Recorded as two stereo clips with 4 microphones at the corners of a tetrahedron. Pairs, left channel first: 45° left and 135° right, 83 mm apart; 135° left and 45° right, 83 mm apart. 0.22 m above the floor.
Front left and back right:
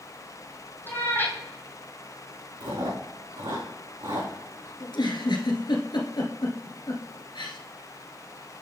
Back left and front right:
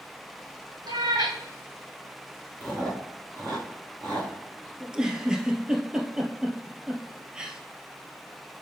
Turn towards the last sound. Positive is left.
turn(degrees=35)